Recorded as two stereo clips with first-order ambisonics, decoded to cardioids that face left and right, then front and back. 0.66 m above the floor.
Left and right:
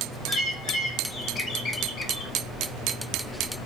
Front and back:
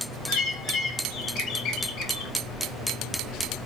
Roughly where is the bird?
Ahead left.